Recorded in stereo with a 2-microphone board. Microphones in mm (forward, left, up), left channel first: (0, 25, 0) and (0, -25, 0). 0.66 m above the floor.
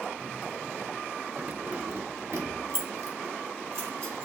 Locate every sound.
1.4 s keys jangling: 25° right (ahead or behind), 0.8 m; by 4.3 s 70° right (ahead or behind), 2.5 m